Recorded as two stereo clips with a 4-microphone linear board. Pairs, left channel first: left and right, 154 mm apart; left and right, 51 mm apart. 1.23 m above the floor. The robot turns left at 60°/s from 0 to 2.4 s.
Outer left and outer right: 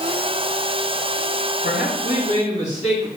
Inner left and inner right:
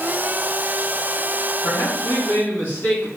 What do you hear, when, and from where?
1.6 s a man speaking: 95° left, 3.5 m; by 3.1 s 50° left, 3.5 m